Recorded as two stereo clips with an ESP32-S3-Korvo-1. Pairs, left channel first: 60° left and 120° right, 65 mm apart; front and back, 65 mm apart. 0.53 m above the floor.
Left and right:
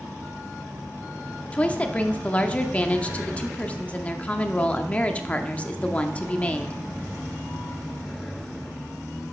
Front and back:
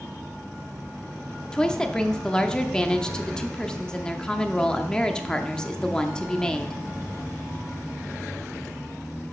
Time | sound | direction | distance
1.5 | a woman speaking | 55° left | 0.7 m